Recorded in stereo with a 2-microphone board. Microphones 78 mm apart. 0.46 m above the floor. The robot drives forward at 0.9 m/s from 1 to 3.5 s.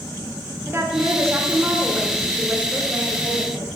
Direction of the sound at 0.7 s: 35° right (ahead or behind).